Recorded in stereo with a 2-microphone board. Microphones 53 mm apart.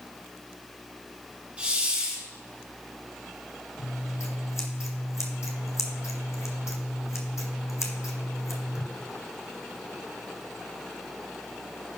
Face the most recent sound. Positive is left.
turn(degrees=65)  # may be behind; listen again after turning